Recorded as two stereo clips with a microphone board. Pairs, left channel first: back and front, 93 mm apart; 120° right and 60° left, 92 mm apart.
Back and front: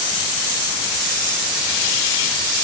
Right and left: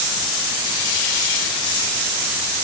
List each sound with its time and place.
Only background noise.